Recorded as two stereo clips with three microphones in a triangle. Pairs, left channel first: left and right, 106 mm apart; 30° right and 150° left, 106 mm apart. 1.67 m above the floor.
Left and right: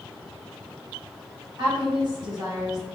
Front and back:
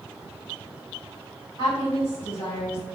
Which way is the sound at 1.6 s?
55° right.